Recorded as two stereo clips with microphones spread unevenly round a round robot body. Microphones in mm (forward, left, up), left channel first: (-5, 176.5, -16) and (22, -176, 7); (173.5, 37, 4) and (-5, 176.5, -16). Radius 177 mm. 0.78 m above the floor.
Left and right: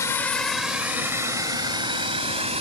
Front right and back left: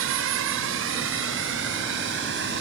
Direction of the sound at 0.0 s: 175° left.